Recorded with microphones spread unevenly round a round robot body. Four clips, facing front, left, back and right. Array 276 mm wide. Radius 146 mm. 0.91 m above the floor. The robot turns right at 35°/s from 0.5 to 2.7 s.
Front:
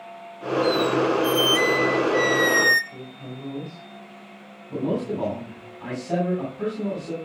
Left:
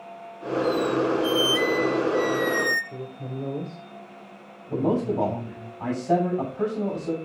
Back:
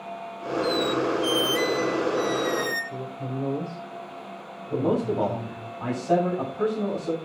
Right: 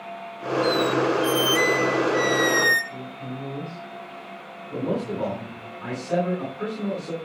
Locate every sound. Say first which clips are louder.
0.6 s a squeak: right 1 dB, front 4 dB; 105° right, 1.3 m; by 2.8 s 30° right, 1.3 m
2.9 s a woman speaking: even, back 6 dB; 140° left, 2.5 m
4.7 s a man speaking: left 3 dB, back 2 dB; 115° left, 6.5 m